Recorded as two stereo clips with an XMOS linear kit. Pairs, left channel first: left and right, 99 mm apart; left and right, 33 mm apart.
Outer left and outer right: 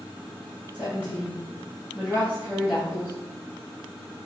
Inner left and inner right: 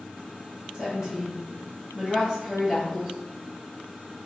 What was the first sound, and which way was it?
A woman speaking, 15° right (ahead or behind).